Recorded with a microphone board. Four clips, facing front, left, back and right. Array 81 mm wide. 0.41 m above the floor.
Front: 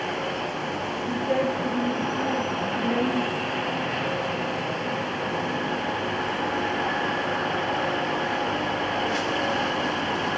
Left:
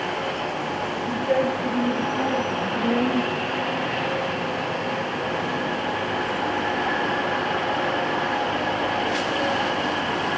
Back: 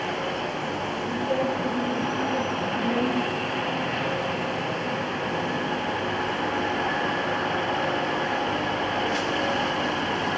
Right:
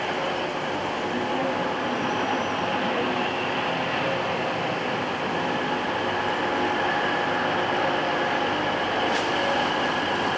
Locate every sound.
1.1 s a woman speaking: 60° left, 7.5 m; by 3.5 s 65° left, 9.5 m